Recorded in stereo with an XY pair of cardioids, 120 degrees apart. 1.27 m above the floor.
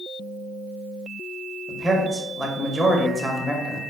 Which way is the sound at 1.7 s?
15° right.